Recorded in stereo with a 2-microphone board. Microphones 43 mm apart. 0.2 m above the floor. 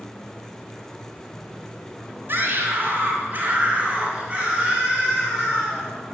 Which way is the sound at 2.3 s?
50° right (ahead or behind).